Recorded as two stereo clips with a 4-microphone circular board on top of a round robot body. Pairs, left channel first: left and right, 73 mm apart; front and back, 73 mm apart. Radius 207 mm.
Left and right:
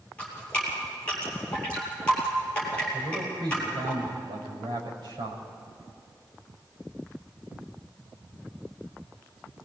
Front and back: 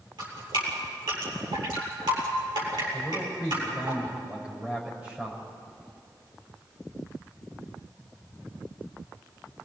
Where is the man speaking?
110° right, 6 m.